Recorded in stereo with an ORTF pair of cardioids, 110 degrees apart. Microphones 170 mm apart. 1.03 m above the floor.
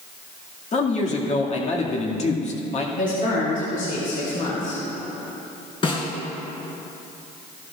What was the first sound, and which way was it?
A man speaking, 40° left.